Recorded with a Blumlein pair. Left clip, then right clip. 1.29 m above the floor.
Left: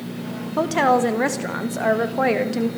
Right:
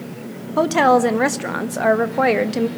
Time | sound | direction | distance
0.6 | a woman speaking | 10° right | 1.7 m